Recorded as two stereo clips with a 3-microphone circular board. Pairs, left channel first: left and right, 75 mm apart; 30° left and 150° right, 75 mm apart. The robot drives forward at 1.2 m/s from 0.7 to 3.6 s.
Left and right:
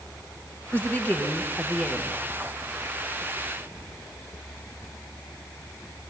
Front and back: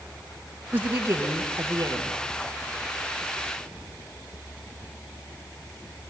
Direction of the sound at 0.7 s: 150° left.